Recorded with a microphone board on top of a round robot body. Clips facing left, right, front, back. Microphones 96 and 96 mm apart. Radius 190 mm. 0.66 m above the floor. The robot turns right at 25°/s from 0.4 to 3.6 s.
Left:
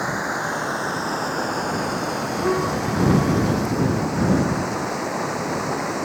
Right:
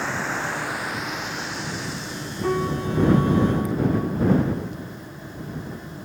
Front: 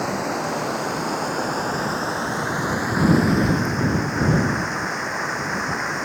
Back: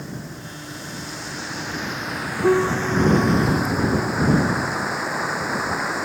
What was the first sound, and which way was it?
Running water, 15° left.